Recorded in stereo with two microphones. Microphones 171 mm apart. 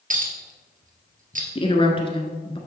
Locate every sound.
0.1 s a clink: 55° right (ahead or behind), 1.6 m
1.6 s a woman speaking: 30° left (ahead or behind), 1.3 m